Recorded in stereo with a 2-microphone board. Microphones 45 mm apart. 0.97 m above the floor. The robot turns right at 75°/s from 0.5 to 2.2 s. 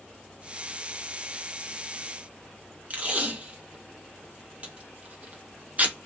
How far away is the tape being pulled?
About 0.8 m.